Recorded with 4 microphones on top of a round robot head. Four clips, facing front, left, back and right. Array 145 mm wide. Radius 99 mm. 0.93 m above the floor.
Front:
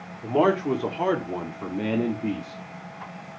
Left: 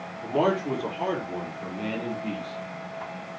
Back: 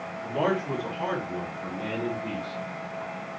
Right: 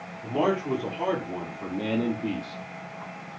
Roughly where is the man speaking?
Ahead.